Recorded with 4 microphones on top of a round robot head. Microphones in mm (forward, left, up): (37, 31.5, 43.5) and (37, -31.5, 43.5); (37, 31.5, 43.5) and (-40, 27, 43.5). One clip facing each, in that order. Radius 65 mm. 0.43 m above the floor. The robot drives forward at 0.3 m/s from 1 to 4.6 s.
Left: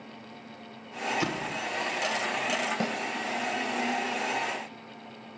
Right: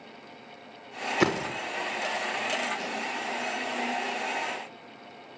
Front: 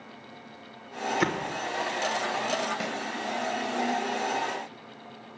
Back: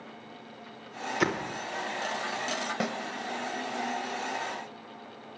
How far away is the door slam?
About 0.7 m.